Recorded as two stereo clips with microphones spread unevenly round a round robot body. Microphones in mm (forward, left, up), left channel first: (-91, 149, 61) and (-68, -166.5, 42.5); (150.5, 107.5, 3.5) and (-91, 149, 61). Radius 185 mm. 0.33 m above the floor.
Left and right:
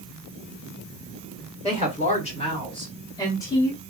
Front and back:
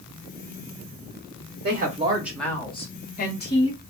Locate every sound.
1.6 s a woman speaking: 150° left, 0.9 m; by 3.8 s 10° left, 1.7 m